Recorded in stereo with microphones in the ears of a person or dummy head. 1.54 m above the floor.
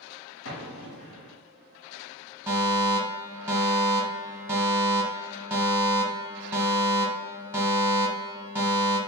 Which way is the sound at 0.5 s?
75° left (ahead or behind).